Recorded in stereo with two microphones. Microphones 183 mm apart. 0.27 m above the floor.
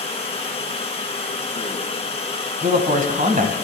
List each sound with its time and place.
0.0 s running water: 35° left (ahead or behind), 1.5 m
2.6 s a man speaking: 50° right (ahead or behind), 1.5 m